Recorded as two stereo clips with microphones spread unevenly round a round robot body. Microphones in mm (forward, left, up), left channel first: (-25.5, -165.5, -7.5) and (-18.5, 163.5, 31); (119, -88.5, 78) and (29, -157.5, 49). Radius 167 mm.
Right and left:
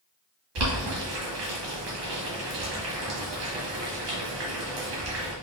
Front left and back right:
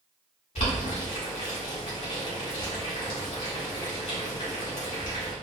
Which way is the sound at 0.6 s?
75° left.